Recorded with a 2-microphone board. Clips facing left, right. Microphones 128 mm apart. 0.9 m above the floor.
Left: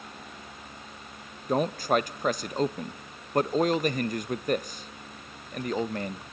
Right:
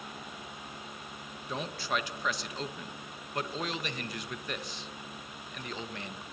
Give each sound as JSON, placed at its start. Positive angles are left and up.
{"t": 1.5, "sound": "a man speaking", "side_deg": 45, "distance_m": 0.7}